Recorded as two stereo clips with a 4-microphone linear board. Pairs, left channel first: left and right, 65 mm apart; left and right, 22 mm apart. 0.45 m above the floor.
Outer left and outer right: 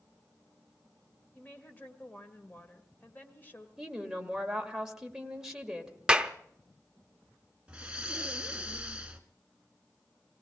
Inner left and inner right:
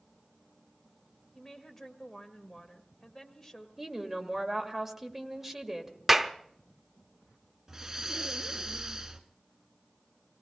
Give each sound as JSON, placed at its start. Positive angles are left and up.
{"t": 1.4, "sound": "a woman speaking", "side_deg": 30, "distance_m": 1.5}
{"t": 3.8, "sound": "a woman speaking", "side_deg": -10, "distance_m": 1.7}
{"t": 6.1, "sound": "a clap", "side_deg": -15, "distance_m": 0.7}
{"t": 7.7, "sound": "breathing", "side_deg": -15, "distance_m": 1.2}